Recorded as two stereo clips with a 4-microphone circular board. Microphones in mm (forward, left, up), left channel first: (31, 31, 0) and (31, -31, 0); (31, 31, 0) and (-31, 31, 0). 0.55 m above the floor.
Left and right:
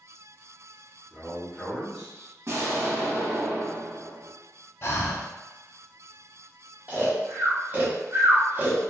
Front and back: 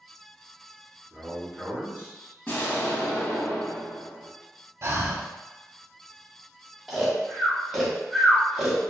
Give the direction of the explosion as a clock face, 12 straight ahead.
2 o'clock.